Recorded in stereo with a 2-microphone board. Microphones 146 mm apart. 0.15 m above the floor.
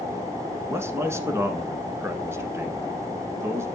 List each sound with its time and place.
0.7 s a man speaking: 20° right (ahead or behind), 1.4 m